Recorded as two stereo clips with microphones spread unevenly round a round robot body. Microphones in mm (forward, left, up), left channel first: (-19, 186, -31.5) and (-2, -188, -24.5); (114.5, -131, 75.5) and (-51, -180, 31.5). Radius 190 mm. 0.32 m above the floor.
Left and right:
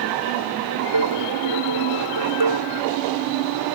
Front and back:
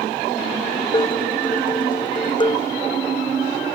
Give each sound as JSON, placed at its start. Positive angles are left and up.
{"t": 0.9, "sound": "dishes clattering", "azimuth_deg": -45}